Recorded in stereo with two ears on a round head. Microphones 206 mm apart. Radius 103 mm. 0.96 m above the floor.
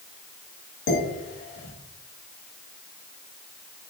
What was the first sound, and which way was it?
Dishes clattering, 55° left (ahead or behind).